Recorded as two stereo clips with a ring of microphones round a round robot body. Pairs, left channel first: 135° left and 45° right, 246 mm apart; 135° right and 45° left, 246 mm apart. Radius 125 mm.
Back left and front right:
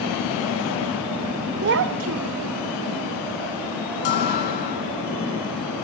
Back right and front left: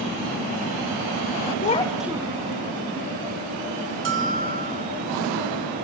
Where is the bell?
85° left, 2 m.